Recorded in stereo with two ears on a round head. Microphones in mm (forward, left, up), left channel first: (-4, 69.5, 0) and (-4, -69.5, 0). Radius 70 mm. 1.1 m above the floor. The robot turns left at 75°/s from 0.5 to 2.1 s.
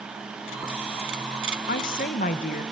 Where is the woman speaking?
100° left, 1.0 m; by 2.6 s 70° left, 1.0 m.